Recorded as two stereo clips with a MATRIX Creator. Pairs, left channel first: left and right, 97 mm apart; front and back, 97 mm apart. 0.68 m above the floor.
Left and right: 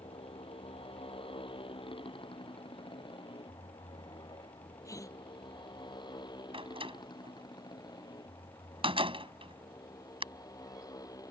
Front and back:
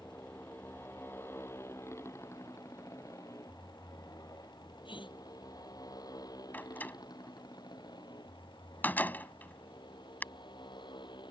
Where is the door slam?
70° right.